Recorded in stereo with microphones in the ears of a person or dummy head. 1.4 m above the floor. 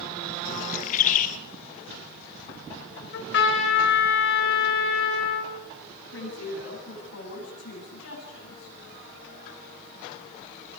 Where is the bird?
50° left (ahead or behind), 1.9 m.